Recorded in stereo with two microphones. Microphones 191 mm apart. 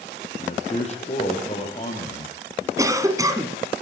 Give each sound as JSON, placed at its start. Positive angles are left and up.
{"t": 0.4, "sound": "a man speaking", "side_deg": 35, "distance_m": 6.0}
{"t": 2.8, "sound": "a cough", "side_deg": -15, "distance_m": 1.4}